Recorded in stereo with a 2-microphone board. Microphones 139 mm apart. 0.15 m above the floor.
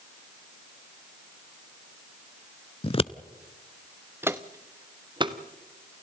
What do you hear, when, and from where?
2.8 s scissors: 40° left (ahead or behind), 0.5 m
4.2 s footsteps: 15° right (ahead or behind), 0.9 m; by 5.4 s 35° right (ahead or behind), 1.6 m